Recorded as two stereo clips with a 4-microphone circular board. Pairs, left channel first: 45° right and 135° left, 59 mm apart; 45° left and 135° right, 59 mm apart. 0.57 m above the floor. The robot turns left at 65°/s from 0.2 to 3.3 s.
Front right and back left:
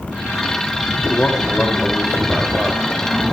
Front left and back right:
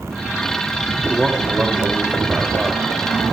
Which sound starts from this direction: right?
A man speaking, at 1.1 s.